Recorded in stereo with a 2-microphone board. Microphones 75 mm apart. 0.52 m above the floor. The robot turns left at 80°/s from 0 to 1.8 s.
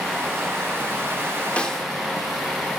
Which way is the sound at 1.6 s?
20° left (ahead or behind).